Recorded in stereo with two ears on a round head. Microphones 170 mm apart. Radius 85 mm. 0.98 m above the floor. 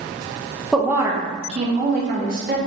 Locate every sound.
0.7 s a woman speaking: centre (ahead or behind), 0.5 m; by 2.6 s 50° right (ahead or behind), 1.2 m